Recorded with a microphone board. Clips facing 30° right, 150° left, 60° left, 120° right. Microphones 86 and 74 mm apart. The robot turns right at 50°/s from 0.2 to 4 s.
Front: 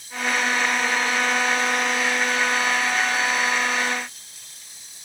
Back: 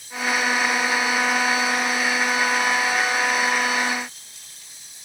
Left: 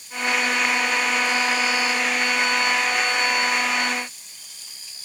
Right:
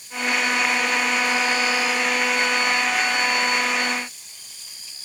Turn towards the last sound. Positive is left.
No sound to turn to.